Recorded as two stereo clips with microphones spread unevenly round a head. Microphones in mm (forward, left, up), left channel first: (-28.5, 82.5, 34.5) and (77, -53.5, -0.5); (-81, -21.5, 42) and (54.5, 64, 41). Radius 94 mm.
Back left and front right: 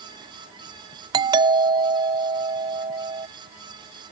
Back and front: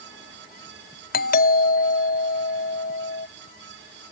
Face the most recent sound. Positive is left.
turn(degrees=-115)